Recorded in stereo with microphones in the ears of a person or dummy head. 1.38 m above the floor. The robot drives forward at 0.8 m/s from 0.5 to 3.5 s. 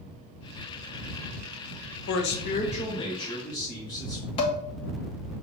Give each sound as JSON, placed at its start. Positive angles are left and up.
{"t": 2.1, "sound": "a man speaking", "side_deg": 70, "distance_m": 0.5}
{"t": 4.4, "sound": "dishes clattering", "side_deg": 35, "distance_m": 0.7}